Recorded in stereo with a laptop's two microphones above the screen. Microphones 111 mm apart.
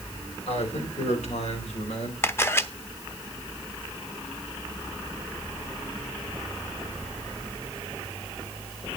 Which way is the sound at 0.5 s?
75° left (ahead or behind).